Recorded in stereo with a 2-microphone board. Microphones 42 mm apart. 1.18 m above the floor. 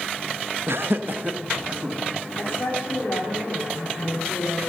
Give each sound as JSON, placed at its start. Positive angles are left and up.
{"t": 0.7, "sound": "laughter", "side_deg": -75, "distance_m": 1.1}
{"t": 2.4, "sound": "a woman speaking", "side_deg": 80, "distance_m": 3.0}